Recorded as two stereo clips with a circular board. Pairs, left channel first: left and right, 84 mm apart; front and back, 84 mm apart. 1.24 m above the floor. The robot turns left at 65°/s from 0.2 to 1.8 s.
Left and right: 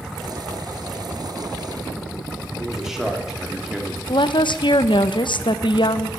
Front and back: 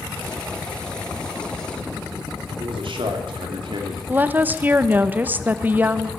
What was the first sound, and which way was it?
A man speaking, 175° right.